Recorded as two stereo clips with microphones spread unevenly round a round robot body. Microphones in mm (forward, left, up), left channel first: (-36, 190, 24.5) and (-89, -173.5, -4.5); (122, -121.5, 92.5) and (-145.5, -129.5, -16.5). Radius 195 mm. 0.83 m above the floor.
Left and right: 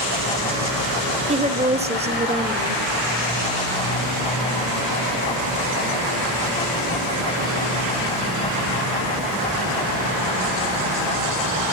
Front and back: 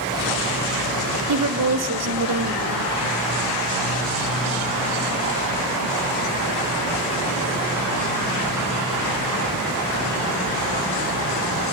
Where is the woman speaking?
170° right, 1.7 m.